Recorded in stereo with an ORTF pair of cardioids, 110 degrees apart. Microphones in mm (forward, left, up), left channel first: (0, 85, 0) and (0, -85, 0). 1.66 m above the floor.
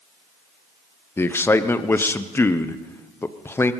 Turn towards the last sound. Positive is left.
turn(degrees=15)